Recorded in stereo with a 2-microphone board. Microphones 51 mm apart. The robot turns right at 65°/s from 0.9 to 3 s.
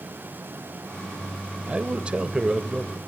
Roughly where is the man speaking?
Right.